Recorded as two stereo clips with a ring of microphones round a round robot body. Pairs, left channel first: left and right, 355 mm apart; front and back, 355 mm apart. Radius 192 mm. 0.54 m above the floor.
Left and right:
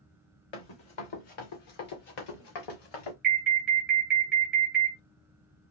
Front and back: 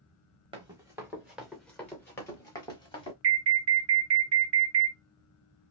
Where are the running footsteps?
105° left, 2.0 m; by 3.1 s 75° left, 3 m.